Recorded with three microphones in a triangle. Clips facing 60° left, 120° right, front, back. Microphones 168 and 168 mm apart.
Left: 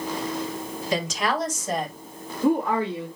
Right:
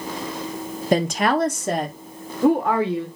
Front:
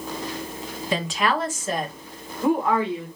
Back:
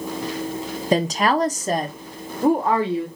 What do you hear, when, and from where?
0.9 s a woman speaking: 140° right, 0.9 m; by 3.1 s 130° right, 2.5 m